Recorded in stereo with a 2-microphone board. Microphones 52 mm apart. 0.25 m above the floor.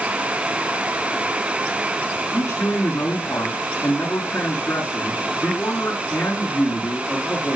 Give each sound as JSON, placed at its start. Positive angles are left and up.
{"t": 2.3, "sound": "a man speaking", "side_deg": 55, "distance_m": 4.0}